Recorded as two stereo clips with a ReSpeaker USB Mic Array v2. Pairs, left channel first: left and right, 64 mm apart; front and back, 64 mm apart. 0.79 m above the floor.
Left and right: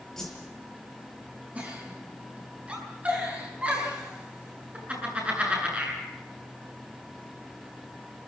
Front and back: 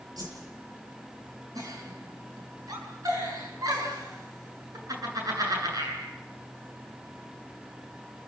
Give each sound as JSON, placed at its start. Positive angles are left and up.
{"t": 0.2, "sound": "a whoosh", "azimuth_deg": 175, "distance_m": 7.0}
{"t": 1.6, "sound": "a giggle", "azimuth_deg": -160, "distance_m": 8.5}